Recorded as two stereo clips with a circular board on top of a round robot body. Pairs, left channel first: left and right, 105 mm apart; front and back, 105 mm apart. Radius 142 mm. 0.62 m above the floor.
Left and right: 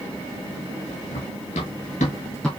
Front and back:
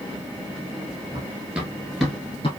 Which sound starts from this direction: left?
Running footsteps, at 1.1 s.